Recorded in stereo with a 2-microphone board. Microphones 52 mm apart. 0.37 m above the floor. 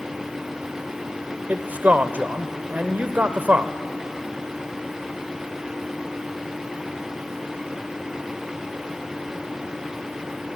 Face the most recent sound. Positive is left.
turn(degrees=-35)  # may be behind; listen again after turning